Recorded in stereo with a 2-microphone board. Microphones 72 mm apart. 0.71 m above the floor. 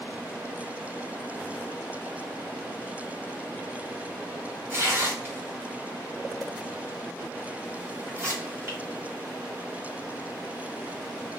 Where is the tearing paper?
35° right (ahead or behind), 1.3 m.